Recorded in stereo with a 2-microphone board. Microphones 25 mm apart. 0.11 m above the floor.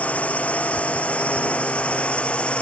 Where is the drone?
70° left (ahead or behind); by 2.6 s 55° left (ahead or behind).